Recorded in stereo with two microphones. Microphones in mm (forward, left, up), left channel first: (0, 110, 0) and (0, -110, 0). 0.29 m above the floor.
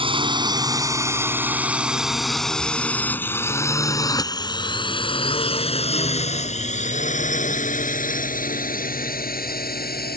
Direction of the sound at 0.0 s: 25° right (ahead or behind).